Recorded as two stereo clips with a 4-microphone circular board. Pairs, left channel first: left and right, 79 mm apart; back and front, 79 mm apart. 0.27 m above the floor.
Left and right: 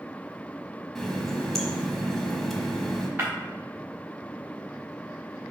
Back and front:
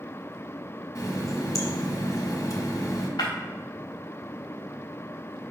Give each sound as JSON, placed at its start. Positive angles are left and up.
{"t": 0.9, "sound": "a running tap", "azimuth_deg": 175, "distance_m": 1.1}
{"t": 3.2, "sound": "breaking glass", "azimuth_deg": -155, "distance_m": 3.0}